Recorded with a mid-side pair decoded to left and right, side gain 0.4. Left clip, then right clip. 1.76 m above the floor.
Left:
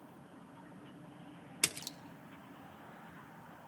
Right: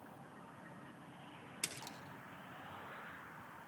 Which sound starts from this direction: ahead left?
A splash, at 1.6 s.